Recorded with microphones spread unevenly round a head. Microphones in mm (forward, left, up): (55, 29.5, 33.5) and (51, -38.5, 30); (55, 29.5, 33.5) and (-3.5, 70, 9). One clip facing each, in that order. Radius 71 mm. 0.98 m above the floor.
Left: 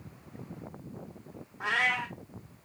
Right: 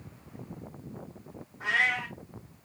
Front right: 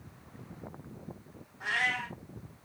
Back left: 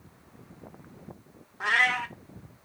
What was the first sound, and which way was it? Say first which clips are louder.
A cat meowing: right 1 dB, back left 7 dB; 120° left.